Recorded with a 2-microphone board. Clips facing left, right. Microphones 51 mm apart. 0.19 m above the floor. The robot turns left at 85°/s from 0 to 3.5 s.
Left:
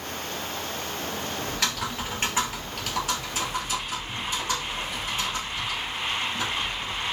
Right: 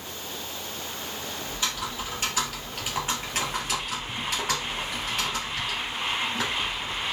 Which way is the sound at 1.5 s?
105° left.